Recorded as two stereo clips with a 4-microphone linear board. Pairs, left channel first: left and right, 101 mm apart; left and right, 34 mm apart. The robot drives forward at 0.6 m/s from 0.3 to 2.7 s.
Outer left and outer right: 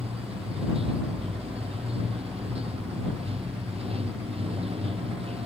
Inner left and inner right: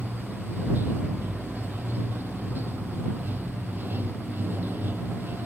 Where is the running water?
85° right; by 5.5 s 90° right.